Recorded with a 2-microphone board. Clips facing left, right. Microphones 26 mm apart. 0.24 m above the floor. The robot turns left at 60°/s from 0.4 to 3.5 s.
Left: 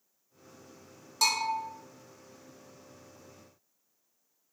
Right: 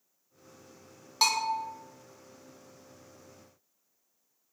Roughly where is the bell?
Right.